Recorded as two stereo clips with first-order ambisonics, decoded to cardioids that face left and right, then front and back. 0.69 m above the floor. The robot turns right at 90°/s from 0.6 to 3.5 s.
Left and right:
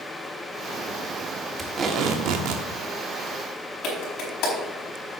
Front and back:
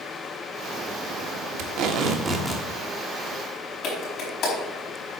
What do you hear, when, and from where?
1.6 s tape being pulled: 175° right, 1.2 m; by 2.6 s 75° right, 1.2 m
3.8 s a clap: 50° left, 4.5 m